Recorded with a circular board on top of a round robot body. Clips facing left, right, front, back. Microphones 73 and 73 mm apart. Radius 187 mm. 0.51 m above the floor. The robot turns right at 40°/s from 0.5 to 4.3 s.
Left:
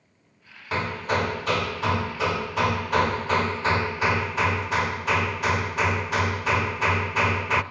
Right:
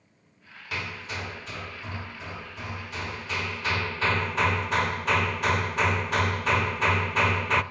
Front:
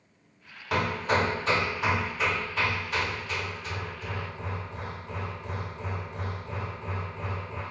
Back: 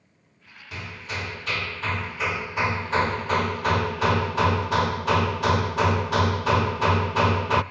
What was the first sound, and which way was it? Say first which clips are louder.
Hammering: left 9 dB, front 10 dB; 35° left.